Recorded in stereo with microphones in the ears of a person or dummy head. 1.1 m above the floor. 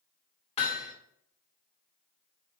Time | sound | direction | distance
0.6 | hammering | 35° left (ahead or behind) | 2 m